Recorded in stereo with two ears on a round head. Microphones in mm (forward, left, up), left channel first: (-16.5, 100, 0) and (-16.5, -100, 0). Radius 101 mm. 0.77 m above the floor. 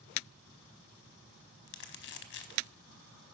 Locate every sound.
1.7 s crumpling: 50° left (ahead or behind), 0.9 m